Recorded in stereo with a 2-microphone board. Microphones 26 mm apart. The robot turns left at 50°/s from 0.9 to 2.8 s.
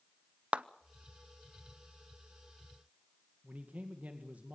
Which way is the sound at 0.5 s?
55° right (ahead or behind).